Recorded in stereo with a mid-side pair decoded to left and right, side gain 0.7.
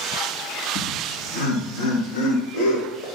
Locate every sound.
0.8 s laughter: 65° left, 1.9 m; by 3.1 s 75° left, 4.5 m